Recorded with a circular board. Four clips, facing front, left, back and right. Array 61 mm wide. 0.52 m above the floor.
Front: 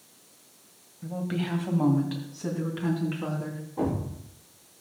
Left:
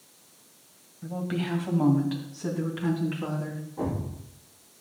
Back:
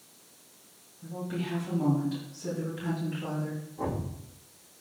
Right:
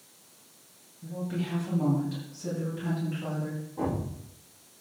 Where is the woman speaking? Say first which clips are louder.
Left 3 dB, front 4 dB; 50° left, 2 m; by 3.6 s 40° left, 4.5 m.